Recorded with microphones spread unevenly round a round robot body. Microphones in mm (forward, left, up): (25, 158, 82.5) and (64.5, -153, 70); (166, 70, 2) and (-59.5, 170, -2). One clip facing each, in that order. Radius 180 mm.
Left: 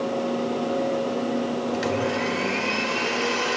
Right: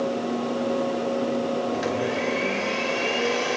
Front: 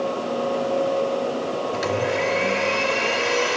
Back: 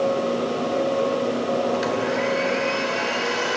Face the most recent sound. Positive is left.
turn(degrees=30)